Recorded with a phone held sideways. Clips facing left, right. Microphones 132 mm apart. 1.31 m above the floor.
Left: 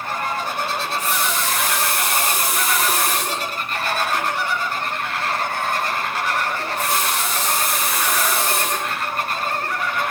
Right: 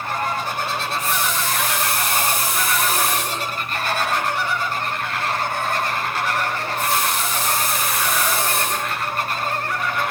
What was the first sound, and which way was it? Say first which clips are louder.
A running tap: even; 75° left (ahead or behind).